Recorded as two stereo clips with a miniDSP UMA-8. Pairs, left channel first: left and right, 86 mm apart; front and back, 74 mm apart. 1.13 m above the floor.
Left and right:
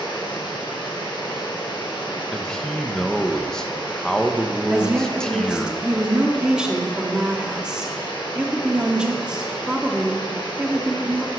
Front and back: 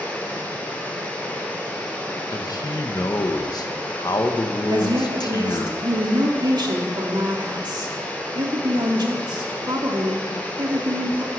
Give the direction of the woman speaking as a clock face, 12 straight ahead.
6 o'clock.